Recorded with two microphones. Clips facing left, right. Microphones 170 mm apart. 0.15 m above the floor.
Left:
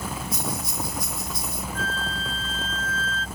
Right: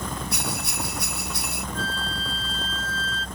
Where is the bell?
70° right (ahead or behind).